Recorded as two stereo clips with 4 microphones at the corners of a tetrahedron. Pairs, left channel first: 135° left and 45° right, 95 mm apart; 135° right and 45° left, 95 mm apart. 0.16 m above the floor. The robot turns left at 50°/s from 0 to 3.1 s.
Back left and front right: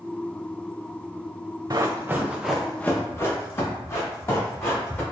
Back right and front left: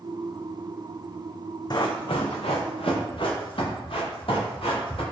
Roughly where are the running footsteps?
Right.